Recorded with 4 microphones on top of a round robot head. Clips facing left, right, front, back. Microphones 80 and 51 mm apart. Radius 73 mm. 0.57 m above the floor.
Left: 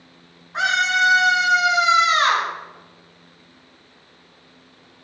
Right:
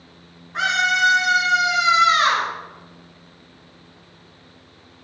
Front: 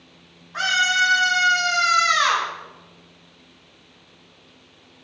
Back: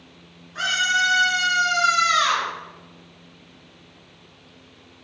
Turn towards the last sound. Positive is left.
turn(degrees=40)